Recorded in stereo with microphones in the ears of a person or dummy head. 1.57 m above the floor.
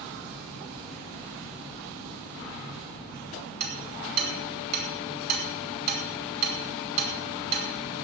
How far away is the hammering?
About 5 m.